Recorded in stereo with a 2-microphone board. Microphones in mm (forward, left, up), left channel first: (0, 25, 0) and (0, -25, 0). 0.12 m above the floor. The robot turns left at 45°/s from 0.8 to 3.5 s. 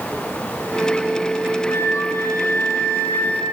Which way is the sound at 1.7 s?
115° left.